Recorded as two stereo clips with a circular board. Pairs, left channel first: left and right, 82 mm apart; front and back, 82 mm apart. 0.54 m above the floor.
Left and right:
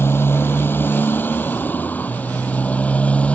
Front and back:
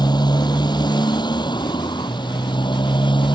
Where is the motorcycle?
30° left; by 3.4 s 15° left.